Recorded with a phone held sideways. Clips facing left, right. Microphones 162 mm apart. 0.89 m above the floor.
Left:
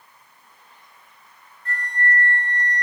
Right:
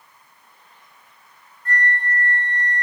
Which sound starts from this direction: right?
A flute, at 1.6 s.